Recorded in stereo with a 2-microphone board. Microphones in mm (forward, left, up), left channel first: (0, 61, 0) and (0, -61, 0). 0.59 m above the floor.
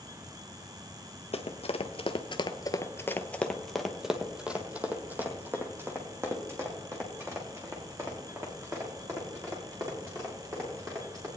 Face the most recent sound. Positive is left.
turn(degrees=-30)  # may be behind; listen again after turning